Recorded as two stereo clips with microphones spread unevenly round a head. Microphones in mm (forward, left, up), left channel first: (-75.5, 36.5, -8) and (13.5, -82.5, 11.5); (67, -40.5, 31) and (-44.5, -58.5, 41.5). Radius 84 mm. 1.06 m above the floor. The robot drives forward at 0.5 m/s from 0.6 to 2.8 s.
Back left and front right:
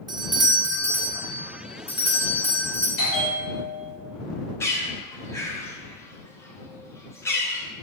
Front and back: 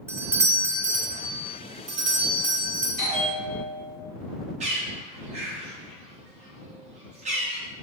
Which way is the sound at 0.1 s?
110° right.